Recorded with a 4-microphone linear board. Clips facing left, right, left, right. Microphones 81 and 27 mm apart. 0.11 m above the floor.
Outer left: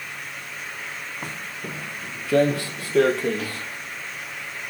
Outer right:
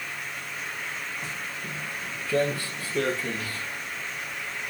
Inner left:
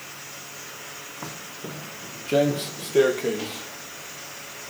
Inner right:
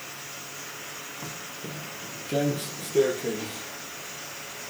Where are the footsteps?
50° left (ahead or behind), 1.1 m; by 3.7 s 80° left, 5 m.